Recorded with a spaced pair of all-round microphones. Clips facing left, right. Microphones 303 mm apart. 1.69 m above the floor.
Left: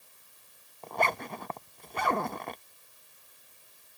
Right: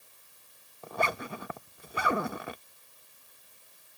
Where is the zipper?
10° right (ahead or behind).